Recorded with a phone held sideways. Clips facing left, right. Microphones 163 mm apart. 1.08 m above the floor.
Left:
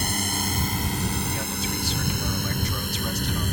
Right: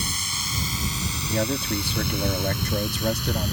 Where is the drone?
55° left (ahead or behind); by 3.5 s 50° left (ahead or behind).